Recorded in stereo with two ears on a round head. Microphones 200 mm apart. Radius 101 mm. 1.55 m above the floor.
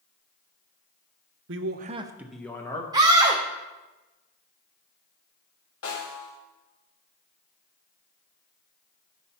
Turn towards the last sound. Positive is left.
turn(degrees=70)  # may be behind; listen again after turning